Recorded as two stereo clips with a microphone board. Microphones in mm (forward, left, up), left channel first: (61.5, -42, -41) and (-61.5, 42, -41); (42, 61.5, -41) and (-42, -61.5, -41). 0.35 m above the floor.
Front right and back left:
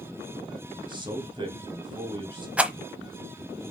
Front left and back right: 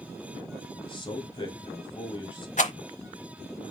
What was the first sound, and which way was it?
A man speaking, 100° left.